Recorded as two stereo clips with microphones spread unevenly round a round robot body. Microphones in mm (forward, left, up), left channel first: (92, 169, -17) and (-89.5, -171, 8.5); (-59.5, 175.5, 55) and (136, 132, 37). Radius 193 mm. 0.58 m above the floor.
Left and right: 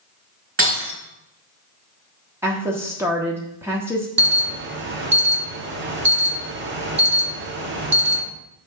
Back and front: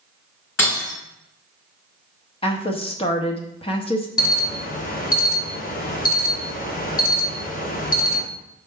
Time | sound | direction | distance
0.6 | breaking glass | 175° left | 4.5 m
2.4 | a woman speaking | 160° left | 1.2 m
4.2 | an alarm | 170° right | 1.0 m